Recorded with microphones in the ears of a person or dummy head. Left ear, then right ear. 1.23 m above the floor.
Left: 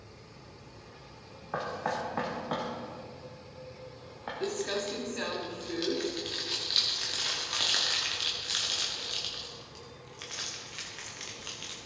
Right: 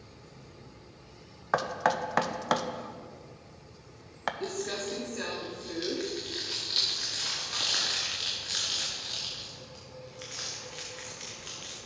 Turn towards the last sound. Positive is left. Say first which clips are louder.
# left 2 dB
turn(degrees=10)  # may be behind; listen again after turning